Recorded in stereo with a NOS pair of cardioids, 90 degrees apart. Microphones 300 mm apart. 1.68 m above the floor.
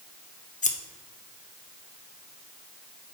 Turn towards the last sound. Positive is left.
turn(degrees=25)